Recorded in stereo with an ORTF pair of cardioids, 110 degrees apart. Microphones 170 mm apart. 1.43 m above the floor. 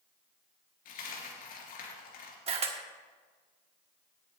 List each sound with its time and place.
0.8 s a dropped coin: 60° left, 4 m
2.5 s a camera shutter: 35° right, 1.6 m